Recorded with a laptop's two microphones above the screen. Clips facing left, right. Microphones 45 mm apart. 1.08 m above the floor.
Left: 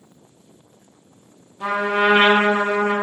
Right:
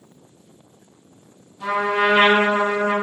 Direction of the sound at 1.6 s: 35° left (ahead or behind).